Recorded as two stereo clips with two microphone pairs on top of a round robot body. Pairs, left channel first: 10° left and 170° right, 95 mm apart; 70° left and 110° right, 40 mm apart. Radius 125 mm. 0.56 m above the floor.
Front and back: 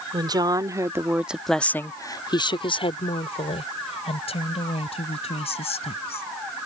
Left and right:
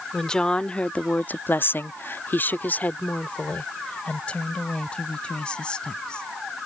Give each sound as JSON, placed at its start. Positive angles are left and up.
{"t": 0.1, "sound": "a woman speaking", "azimuth_deg": 145}